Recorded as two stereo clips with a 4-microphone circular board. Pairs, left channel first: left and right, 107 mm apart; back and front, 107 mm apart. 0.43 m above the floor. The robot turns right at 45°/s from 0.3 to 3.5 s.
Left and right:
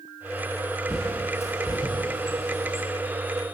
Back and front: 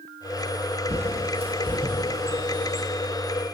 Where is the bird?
Straight ahead, 6.5 m; by 2.9 s 90° left, 6.5 m.